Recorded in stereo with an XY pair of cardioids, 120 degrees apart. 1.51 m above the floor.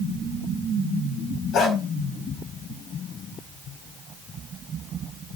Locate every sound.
1.5 s a dog barking: 70° left, 4.5 m